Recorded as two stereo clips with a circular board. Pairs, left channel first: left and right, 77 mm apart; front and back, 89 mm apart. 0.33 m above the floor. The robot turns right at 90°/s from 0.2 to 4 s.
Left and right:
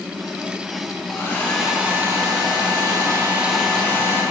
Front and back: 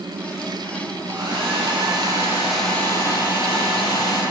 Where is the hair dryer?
130° left, 2.5 m; by 4.2 s 35° left, 2.5 m.